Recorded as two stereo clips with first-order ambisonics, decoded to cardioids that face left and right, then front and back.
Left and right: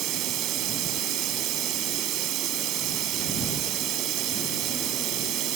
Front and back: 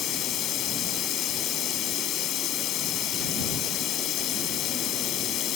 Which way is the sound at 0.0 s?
45° right.